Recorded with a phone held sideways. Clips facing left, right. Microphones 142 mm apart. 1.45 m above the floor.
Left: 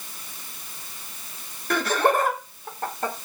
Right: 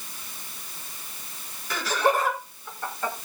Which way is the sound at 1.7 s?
55° left (ahead or behind).